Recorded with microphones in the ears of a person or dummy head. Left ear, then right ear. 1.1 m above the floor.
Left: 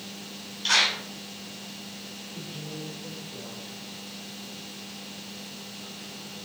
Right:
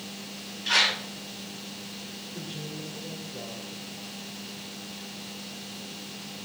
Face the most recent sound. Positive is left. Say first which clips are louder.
# even
turn(degrees=-40)  # may be behind; listen again after turning